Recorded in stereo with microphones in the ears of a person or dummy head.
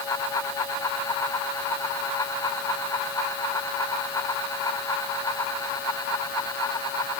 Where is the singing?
No singing in this recording.